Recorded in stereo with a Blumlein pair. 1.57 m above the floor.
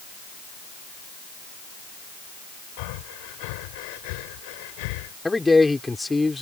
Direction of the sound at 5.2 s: 5° left.